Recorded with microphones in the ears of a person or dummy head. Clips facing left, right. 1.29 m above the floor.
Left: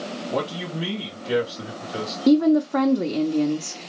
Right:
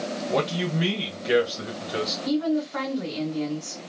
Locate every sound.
0.3 s a man speaking: 25° right (ahead or behind), 1.8 m
2.3 s a woman speaking: 60° left (ahead or behind), 0.7 m